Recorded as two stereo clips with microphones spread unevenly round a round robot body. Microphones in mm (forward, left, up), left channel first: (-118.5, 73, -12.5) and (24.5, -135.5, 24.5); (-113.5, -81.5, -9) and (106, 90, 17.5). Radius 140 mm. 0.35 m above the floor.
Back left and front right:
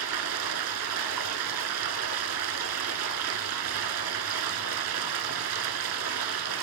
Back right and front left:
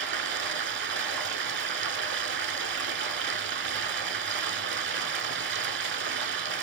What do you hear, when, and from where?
0.0 s running water: 15° right, 0.7 m